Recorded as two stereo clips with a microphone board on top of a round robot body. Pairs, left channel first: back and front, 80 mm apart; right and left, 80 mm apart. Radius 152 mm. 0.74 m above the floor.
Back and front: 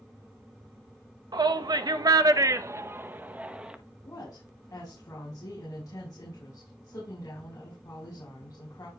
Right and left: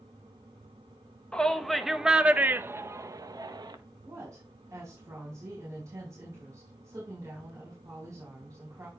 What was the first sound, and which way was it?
A shout, 10° right.